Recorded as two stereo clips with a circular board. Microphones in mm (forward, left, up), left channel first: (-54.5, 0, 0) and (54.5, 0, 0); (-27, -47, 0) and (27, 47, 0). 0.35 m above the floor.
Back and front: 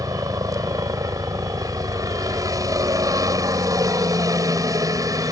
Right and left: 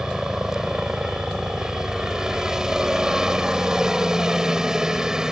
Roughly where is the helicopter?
Ahead.